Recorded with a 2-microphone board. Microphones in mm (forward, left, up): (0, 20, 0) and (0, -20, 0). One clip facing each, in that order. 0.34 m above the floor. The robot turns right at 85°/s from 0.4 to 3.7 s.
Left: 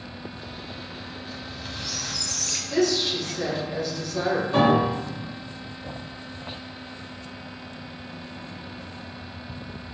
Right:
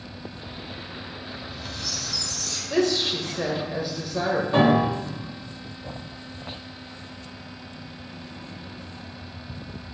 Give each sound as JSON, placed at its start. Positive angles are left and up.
{"t": 1.3, "sound": "a squeak", "azimuth_deg": -20, "distance_m": 0.6}
{"t": 2.7, "sound": "a woman speaking", "azimuth_deg": -110, "distance_m": 1.1}
{"t": 4.5, "sound": "a piano", "side_deg": -20, "distance_m": 1.6}